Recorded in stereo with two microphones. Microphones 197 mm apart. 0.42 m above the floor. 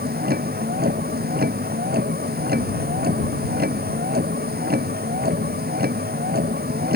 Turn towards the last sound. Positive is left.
turn(degrees=-50)  # may be behind; listen again after turning